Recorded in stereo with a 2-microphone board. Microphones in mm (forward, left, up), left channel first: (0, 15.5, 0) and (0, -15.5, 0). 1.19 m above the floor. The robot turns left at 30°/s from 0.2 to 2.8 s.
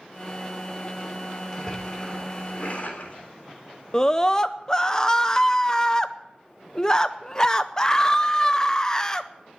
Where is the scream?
20° left (ahead or behind), 0.6 m.